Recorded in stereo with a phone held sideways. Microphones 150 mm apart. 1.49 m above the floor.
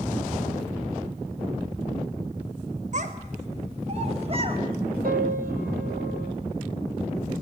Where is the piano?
75° right (ahead or behind), 3 m.